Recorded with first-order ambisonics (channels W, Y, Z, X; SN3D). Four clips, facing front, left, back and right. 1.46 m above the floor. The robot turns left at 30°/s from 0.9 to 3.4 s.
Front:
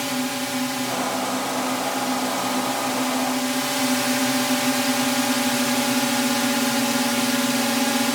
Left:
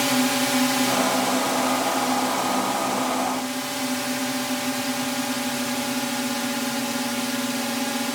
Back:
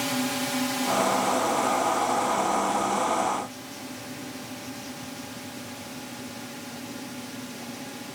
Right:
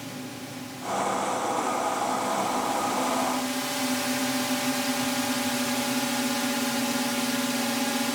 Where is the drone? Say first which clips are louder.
Left 16 dB, front 2 dB; 80° left; by 8.1 s 5° left.